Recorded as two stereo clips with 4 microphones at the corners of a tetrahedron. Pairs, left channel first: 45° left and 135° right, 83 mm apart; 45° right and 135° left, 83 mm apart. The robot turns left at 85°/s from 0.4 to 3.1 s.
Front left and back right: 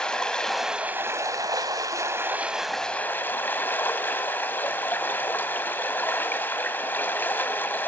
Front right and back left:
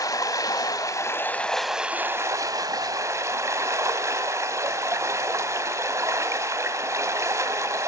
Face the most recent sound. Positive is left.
turn(degrees=100)